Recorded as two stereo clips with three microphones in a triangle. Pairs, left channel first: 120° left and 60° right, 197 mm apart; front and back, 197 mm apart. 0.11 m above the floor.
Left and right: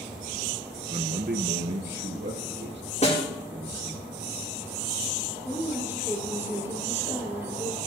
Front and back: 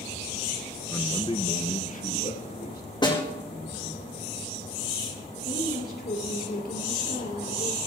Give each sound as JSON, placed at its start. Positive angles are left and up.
{"t": 0.9, "sound": "a man speaking", "azimuth_deg": -70, "distance_m": 1.4}
{"t": 3.0, "sound": "a snare drum", "azimuth_deg": 65, "distance_m": 4.5}
{"t": 5.5, "sound": "a woman speaking", "azimuth_deg": 15, "distance_m": 2.5}